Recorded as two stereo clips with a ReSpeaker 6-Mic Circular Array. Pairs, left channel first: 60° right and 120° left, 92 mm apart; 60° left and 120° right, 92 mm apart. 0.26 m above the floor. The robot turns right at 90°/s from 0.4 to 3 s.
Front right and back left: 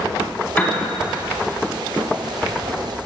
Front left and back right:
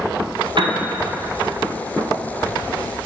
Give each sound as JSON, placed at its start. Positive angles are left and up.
{"t": 0.6, "sound": "a piano", "azimuth_deg": -130, "distance_m": 0.8}